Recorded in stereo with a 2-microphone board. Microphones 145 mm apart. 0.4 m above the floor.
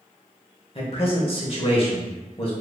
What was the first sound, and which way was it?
A man speaking, 40° left (ahead or behind).